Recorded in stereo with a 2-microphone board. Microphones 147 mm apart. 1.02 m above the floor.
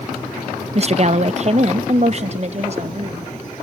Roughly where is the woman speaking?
Right.